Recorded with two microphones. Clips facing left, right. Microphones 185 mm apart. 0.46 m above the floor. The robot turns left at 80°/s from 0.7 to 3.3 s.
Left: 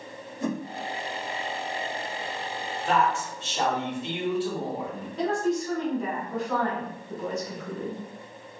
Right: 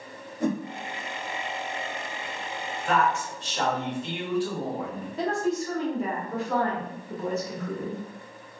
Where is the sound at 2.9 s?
75° left, 1.4 m; by 5.1 s 35° left, 1.4 m.